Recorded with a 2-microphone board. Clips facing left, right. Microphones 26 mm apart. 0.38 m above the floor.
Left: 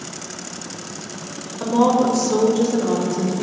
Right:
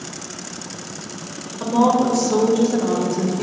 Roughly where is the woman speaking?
Centre.